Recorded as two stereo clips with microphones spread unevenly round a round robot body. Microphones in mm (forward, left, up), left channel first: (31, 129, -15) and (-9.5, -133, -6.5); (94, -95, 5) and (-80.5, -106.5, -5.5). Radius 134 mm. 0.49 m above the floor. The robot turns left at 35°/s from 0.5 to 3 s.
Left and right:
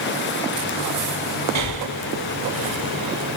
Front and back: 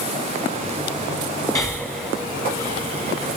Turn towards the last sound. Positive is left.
turn(degrees=-120)